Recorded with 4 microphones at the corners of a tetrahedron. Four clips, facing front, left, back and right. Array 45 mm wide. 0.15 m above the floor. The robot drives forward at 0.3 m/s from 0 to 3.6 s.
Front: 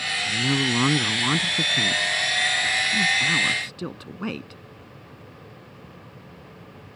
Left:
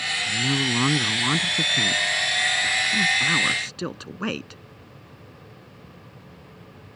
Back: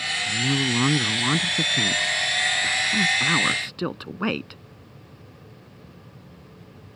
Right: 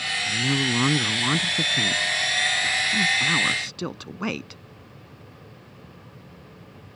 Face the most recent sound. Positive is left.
turn(degrees=175)